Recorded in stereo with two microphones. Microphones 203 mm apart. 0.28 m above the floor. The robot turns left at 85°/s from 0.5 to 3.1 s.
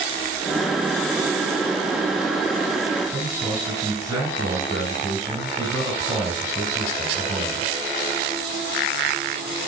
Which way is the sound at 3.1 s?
15° right (ahead or behind).